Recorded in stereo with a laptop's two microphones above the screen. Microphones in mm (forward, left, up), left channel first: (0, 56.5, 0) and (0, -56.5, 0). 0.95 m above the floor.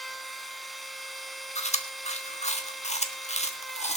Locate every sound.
0.0 s a machine running: centre (ahead or behind), 2 m
1.6 s chewing: 80° left, 1.3 m